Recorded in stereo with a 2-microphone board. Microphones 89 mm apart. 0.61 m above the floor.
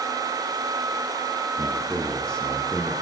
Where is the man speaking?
10° left (ahead or behind), 10 m; by 2.9 s 5° left (ahead or behind), 10.5 m.